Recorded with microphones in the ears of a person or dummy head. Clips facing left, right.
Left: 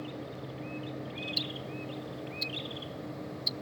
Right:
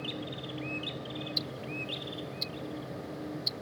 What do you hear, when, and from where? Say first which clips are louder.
1.4 s ticking: even; 20° left (ahead or behind)